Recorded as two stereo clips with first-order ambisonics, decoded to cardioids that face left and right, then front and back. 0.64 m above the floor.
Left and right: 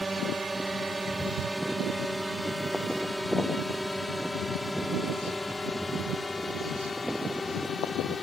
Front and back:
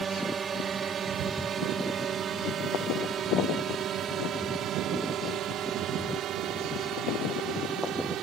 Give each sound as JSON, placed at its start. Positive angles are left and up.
{"t": 0.0, "sound": "a drone", "azimuth_deg": -160}